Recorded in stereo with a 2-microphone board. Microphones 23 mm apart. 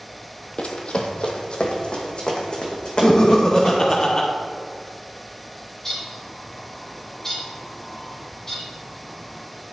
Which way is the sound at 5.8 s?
20° left (ahead or behind).